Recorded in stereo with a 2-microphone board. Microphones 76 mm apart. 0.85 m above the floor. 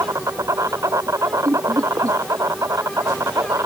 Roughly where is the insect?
Right.